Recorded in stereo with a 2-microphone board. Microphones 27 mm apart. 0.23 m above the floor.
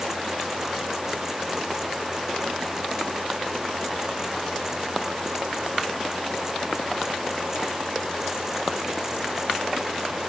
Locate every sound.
Only background noise.